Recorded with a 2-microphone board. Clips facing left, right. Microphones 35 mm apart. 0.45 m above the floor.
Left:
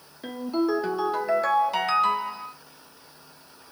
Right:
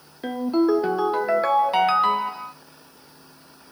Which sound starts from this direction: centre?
A ringtone, at 0.2 s.